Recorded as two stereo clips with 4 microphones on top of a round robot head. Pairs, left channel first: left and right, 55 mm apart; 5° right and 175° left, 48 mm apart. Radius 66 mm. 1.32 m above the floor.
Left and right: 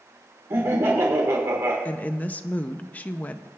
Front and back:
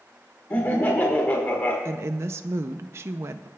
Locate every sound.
0.5 s laughter: 50° right, 1.4 m
1.9 s a woman speaking: 150° left, 0.5 m